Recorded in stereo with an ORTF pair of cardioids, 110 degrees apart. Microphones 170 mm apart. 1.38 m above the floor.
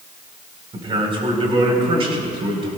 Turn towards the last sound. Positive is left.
turn(degrees=-35)